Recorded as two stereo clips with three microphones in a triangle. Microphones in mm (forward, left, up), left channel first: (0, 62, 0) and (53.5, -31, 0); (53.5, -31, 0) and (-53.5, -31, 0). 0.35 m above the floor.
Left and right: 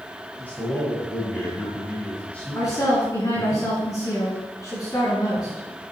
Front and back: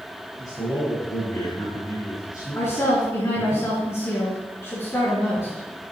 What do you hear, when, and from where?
0.4 s a man speaking: 50° left, 3.5 m
2.5 s a woman speaking: 65° left, 3.5 m